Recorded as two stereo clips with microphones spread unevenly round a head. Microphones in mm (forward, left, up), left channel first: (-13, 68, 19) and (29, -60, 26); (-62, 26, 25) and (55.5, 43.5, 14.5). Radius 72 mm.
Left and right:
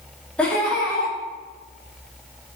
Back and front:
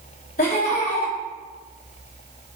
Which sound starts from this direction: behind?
Laughter, at 0.4 s.